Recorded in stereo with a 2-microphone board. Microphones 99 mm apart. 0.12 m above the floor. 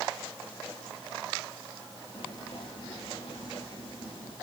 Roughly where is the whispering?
Left.